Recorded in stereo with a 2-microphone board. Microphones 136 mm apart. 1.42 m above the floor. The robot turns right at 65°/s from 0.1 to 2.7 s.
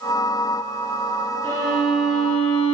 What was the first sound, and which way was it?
A violin, 50° right.